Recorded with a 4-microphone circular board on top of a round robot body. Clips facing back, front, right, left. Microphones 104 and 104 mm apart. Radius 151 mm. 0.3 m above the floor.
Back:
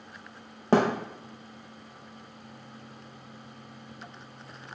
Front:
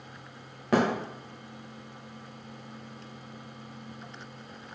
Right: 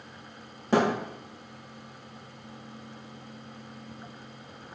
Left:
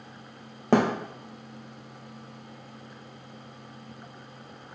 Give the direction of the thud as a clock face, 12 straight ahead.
8 o'clock.